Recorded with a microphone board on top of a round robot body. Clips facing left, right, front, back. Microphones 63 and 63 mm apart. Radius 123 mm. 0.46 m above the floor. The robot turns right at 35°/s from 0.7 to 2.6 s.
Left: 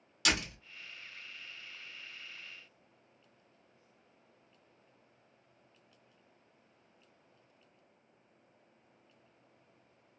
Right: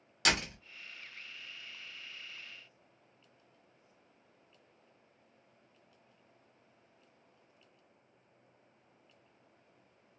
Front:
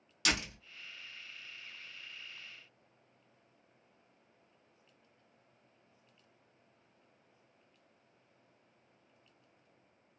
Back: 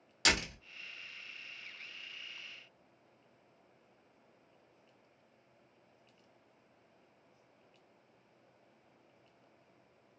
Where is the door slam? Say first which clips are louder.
Right 1 dB, back 2 dB; 135° right, 1.4 m.